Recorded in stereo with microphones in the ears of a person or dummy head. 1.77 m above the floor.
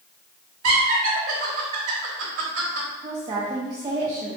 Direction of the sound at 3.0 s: 20° right (ahead or behind).